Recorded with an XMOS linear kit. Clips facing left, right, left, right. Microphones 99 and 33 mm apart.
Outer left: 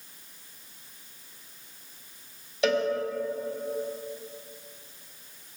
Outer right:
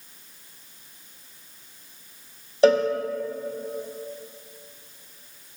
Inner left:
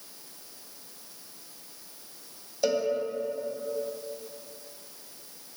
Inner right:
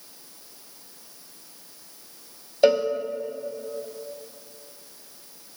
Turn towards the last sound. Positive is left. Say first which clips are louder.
# outer right 7 dB, inner right 8 dB
turn(degrees=-40)  # may be behind; listen again after turning